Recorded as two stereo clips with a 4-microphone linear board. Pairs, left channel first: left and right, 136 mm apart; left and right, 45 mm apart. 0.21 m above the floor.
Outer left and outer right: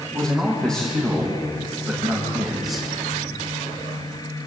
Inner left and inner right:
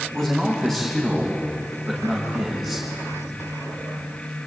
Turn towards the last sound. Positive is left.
turn(degrees=0)  # may be behind; listen again after turning